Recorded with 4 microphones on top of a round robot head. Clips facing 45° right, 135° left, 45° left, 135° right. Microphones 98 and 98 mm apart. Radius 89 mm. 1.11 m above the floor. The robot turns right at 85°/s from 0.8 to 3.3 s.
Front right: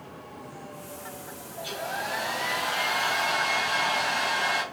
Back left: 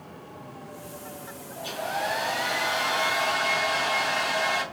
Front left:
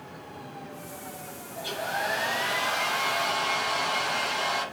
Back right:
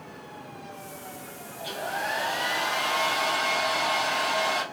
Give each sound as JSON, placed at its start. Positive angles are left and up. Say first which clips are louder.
{"t": 1.6, "sound": "a hair dryer", "louder": "back left 3 dB, front left 1 dB", "azimuth_deg": 80, "distance_m": 3.0}